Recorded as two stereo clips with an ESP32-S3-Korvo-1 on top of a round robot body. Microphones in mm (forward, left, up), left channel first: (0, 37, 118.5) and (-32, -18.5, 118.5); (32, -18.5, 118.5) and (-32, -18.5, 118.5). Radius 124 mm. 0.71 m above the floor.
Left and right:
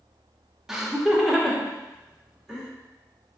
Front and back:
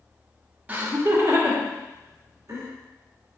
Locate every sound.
0.7 s laughter: 165° left, 0.6 m; by 2.7 s 145° left, 1.4 m